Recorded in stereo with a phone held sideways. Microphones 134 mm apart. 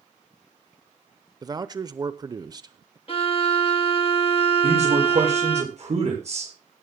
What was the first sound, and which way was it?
A man speaking, 30° right (ahead or behind).